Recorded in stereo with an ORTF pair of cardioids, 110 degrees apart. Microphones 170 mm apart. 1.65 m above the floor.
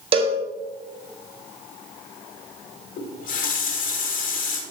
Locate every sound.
0.1 s a cowbell: 35° right, 1.1 m
3.0 s a running tap: 55° left, 2.0 m